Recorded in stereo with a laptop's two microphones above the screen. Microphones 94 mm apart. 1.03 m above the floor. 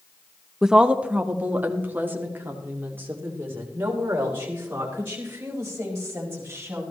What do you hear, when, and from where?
0.6 s a woman speaking: 5° right (ahead or behind), 0.7 m; by 6.8 s 25° right (ahead or behind), 5.5 m